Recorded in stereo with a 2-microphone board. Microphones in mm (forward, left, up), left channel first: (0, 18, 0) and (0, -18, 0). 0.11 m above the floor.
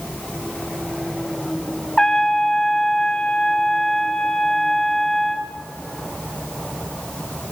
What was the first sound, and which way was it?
A trumpet, 15° left (ahead or behind).